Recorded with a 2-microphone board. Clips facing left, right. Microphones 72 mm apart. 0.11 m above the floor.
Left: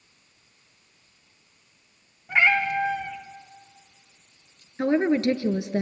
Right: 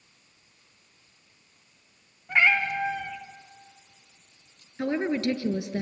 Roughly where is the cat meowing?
Centre.